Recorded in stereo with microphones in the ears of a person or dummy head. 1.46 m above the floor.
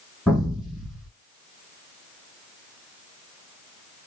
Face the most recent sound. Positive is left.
turn(degrees=0)  # may be behind; listen again after turning